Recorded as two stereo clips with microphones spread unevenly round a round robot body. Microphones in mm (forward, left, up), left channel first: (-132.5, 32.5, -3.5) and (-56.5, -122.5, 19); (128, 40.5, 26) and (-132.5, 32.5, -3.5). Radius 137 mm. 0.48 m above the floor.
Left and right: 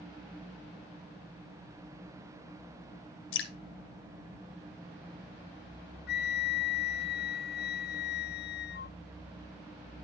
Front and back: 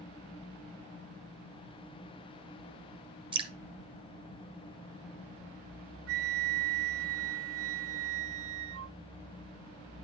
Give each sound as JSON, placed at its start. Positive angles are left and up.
{"t": 3.3, "sound": "dripping", "azimuth_deg": 110, "distance_m": 1.5}
{"t": 6.1, "sound": "a flute", "azimuth_deg": 145, "distance_m": 0.5}